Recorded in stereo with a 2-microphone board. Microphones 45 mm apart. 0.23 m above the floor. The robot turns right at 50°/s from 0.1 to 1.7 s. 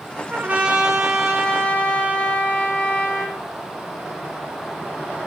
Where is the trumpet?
35° right, 3 m; by 3.4 s 35° left, 3 m.